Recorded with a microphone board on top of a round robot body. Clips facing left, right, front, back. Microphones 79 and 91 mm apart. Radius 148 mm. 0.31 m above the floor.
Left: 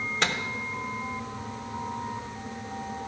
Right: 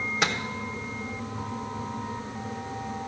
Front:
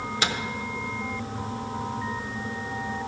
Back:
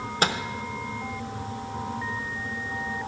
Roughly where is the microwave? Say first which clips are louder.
Right 1 dB, back 4 dB; behind.